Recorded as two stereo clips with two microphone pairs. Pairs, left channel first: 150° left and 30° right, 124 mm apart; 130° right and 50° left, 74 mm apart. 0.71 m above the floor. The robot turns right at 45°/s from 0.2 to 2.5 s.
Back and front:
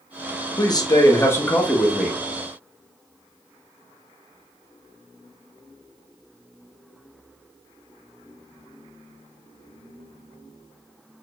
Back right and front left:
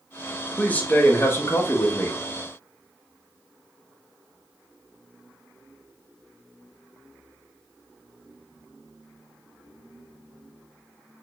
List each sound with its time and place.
0.6 s a man speaking: 175° left, 0.6 m; by 2.2 s 115° right, 0.6 m